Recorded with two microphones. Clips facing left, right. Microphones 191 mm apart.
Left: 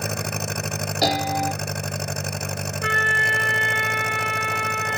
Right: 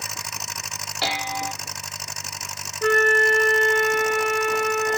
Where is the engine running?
60° left (ahead or behind).